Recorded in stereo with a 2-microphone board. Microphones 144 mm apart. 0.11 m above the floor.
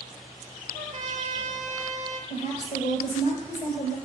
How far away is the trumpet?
About 0.9 m.